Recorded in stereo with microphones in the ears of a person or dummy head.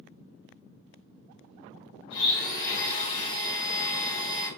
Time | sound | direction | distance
2.1 | a blender | 30° left (ahead or behind) | 1.5 m